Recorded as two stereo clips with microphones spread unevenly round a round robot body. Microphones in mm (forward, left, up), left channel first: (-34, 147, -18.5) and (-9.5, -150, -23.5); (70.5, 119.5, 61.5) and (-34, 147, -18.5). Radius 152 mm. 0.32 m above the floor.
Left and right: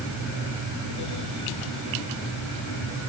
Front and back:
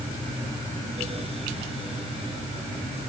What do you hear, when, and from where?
Only background noise.